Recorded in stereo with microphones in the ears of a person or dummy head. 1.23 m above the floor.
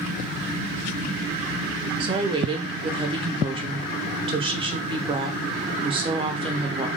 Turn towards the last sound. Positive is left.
turn(degrees=-30)  # may be behind; listen again after turning